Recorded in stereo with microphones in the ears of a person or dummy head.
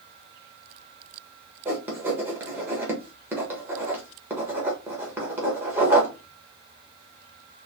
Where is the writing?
15° right (ahead or behind), 1.6 m.